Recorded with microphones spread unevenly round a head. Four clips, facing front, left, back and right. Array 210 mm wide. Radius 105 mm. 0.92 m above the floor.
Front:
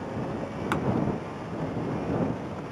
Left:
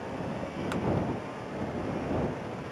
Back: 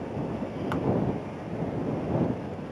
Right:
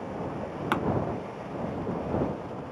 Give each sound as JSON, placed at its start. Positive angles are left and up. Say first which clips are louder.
{"t": 0.7, "sound": "a pop", "louder": "right 6 dB, front 2 dB", "azimuth_deg": -55}